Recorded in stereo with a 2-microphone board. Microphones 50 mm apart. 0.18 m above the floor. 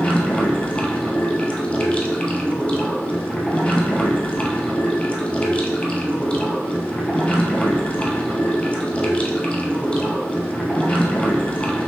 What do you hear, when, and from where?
0.0 s running water: 30° left (ahead or behind), 1.0 m